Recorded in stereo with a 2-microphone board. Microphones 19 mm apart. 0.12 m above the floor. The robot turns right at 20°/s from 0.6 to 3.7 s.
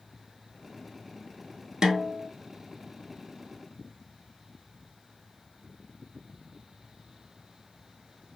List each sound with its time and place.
1.8 s a snare drum: 35° right (ahead or behind), 0.7 m